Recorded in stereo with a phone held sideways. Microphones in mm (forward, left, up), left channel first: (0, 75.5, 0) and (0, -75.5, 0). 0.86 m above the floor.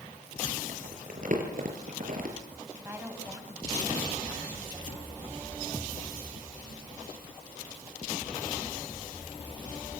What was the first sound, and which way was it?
Crumpling, 65° right (ahead or behind).